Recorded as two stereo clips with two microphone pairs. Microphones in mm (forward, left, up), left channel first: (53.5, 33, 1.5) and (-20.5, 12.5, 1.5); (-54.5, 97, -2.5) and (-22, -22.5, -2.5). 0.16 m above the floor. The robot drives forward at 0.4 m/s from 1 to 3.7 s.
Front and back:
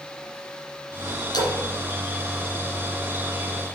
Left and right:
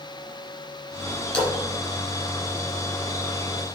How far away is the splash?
About 2.5 m.